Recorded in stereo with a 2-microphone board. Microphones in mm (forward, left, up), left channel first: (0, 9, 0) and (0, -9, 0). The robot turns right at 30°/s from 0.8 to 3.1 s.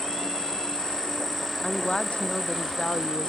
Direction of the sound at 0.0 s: 150° left.